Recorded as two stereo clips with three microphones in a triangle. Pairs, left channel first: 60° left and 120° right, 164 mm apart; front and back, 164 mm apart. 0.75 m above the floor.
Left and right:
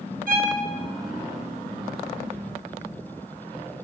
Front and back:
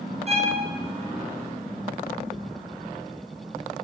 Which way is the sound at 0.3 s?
140° right.